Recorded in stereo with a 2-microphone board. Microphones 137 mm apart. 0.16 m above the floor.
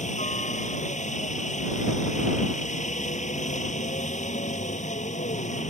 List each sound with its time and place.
0.0 s a helicopter: 60° left (ahead or behind)